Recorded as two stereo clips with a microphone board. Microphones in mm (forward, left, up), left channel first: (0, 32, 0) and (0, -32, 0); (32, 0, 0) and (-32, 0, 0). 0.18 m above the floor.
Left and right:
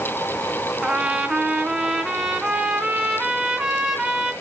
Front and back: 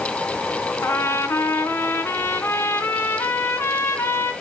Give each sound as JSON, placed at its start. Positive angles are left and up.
{"t": 0.8, "sound": "a trumpet", "azimuth_deg": -15, "distance_m": 1.9}